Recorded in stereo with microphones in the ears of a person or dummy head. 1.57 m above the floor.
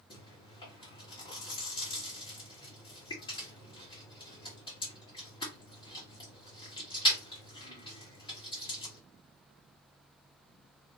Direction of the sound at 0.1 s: 30° left (ahead or behind).